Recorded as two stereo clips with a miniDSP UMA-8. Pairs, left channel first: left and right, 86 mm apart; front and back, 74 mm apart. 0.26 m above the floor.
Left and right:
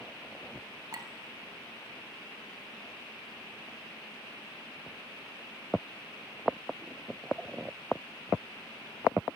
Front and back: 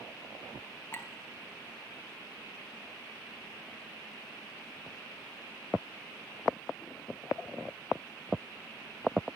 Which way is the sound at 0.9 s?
55° right.